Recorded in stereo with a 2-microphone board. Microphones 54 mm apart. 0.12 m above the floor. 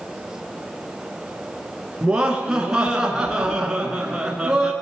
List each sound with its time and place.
2.0 s laughter: 15° right (ahead or behind), 1.1 m